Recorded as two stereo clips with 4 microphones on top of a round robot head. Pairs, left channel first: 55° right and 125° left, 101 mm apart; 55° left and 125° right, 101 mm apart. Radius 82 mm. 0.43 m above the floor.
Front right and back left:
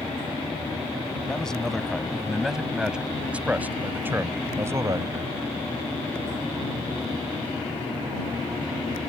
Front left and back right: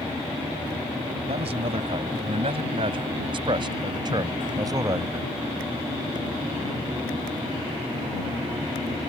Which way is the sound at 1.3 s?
140° right.